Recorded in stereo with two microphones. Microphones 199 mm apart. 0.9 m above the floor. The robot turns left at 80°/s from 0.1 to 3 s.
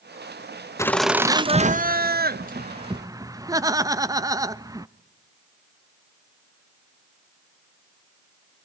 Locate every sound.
0.8 s laughter: 20° left, 0.7 m; by 4.9 s 160° right, 0.7 m